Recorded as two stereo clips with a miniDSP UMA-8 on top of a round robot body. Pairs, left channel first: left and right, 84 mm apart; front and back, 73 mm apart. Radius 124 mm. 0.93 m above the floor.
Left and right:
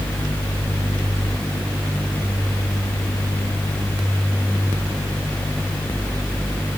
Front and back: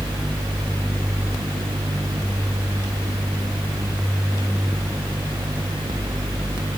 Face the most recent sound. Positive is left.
No sound to turn to.